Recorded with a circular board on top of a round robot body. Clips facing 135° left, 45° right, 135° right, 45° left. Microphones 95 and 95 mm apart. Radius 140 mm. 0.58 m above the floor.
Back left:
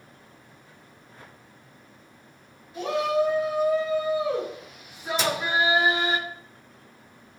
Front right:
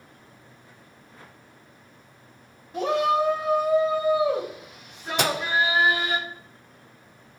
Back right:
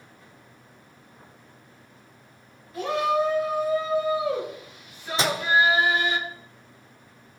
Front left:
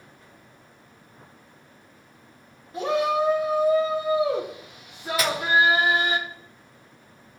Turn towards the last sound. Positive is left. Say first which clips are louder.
# front right 2 dB, back right 1 dB
turn(degrees=-70)